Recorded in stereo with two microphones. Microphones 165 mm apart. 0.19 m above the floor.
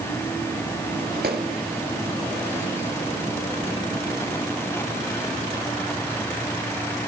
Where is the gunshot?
75° right (ahead or behind), 1.7 m.